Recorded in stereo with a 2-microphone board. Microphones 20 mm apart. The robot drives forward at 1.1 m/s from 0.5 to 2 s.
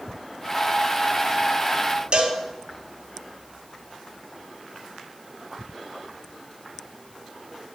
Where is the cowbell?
55° right (ahead or behind), 1.8 m.